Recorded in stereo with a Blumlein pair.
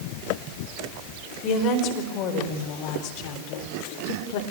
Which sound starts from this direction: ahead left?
A woman speaking, at 1.4 s.